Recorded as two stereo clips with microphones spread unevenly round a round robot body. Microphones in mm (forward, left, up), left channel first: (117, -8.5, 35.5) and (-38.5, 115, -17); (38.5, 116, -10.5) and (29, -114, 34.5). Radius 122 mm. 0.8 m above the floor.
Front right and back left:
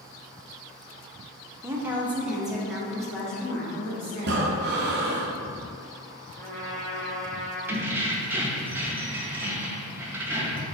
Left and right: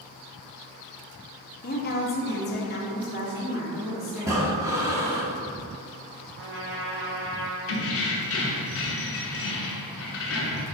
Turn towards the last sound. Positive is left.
turn(degrees=65)